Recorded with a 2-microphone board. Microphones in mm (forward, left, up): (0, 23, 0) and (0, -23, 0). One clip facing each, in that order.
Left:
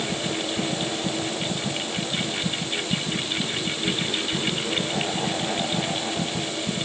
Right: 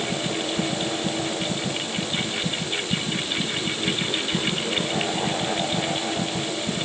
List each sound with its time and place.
Only background noise.